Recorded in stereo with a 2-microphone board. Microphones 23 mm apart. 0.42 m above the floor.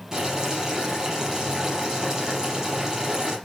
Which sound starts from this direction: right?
Boiling, at 0.1 s.